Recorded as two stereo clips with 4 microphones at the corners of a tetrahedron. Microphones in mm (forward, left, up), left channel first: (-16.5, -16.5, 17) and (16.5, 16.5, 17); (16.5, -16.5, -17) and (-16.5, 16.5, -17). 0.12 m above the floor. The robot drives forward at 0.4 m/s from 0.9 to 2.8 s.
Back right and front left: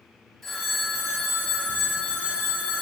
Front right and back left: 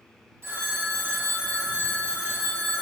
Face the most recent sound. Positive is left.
turn(degrees=155)